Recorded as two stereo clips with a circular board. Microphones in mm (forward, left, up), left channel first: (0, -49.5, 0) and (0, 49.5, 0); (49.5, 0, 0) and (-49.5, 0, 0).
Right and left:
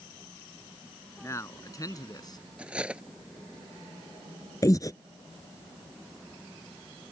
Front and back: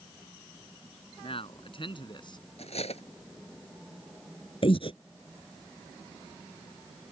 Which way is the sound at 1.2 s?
25° right.